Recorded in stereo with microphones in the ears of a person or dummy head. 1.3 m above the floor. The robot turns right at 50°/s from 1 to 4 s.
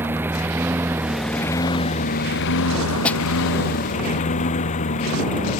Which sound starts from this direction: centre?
A snare drum, at 3.0 s.